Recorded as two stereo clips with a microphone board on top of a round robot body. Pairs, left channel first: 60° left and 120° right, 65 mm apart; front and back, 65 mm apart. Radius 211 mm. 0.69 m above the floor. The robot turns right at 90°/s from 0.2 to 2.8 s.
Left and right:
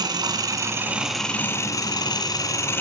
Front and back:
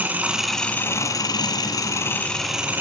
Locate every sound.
0.0 s an engine running: 115° right, 2.5 m; by 2.8 s 120° left, 2.5 m